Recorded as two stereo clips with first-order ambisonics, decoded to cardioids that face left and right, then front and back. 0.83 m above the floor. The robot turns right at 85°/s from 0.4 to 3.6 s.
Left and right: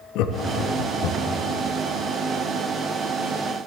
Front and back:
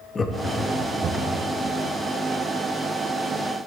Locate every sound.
0.1 s laughter: 70° left, 0.6 m; by 1.4 s 160° left, 0.6 m